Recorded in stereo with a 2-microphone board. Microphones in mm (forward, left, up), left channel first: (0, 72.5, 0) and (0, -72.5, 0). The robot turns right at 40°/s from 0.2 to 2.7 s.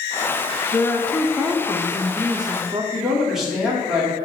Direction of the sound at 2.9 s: 5° right (ahead or behind).